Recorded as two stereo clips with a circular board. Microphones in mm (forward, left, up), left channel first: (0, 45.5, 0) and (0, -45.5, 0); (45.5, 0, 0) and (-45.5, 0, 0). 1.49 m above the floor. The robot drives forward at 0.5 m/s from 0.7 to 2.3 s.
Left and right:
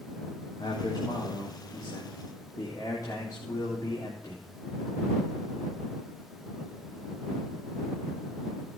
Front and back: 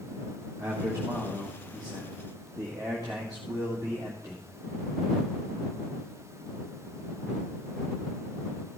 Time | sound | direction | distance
0.6 | a man speaking | 125° left | 2 m